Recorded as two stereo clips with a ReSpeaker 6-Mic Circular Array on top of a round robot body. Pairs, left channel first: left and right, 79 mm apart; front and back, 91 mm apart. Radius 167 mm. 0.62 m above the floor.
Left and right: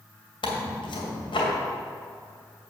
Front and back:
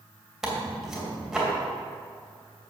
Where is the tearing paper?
95° left, 2.5 m.